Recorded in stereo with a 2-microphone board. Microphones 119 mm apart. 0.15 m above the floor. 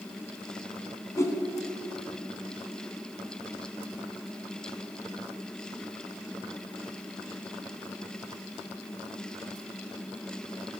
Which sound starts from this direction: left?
A whoosh, at 1.2 s.